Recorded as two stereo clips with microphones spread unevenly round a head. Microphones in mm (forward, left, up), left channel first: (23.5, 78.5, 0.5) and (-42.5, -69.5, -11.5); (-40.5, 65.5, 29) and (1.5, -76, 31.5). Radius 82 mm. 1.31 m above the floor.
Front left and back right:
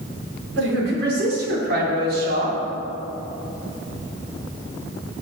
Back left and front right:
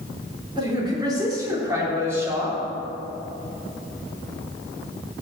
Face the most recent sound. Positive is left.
turn(degrees=-150)